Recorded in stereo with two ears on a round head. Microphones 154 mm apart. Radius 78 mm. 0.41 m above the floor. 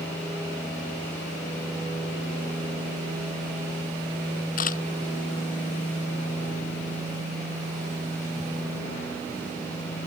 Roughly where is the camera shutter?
Left.